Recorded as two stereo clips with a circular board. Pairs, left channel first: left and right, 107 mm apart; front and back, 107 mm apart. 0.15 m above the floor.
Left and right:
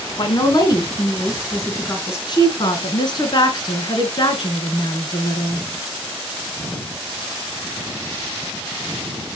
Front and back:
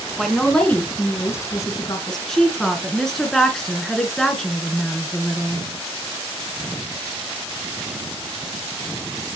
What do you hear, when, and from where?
0.2 s a woman speaking: 95° left, 2.0 m; by 2.2 s 35° left, 2.5 m
2.3 s a woman speaking: 85° left, 1.8 m